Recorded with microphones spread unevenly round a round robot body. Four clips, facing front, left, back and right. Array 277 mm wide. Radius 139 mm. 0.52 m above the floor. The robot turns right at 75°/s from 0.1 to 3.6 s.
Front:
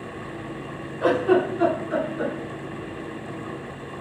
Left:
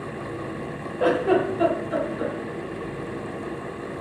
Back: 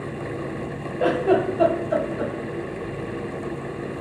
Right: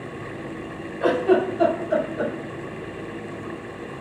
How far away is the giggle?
About 2.5 m.